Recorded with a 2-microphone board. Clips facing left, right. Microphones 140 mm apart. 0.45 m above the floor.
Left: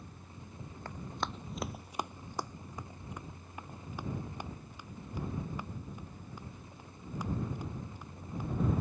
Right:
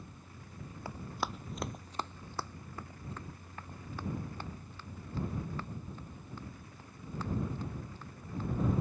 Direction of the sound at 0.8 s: 10° right (ahead or behind).